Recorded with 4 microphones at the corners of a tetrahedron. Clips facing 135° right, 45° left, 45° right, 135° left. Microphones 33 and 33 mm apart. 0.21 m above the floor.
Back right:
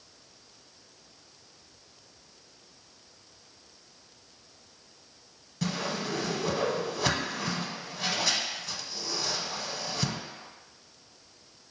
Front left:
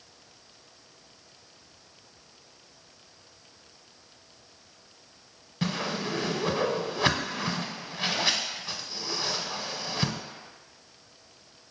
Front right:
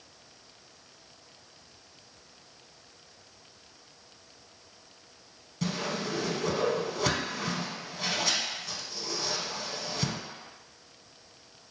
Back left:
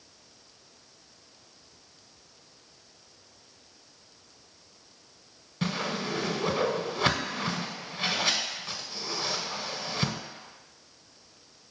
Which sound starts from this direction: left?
A whoosh, at 5.6 s.